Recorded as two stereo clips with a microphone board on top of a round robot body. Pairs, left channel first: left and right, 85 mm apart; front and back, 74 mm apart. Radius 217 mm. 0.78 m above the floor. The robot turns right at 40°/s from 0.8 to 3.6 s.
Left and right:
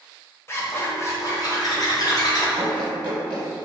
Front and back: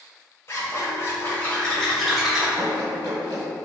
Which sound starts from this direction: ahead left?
A zipper, at 0.5 s.